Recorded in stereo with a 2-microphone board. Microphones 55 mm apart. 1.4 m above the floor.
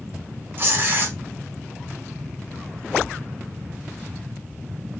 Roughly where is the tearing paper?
Right.